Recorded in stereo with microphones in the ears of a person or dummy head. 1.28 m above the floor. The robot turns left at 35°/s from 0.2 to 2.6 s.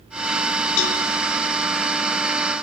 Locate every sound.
0.8 s a cowbell: 60° left (ahead or behind), 2 m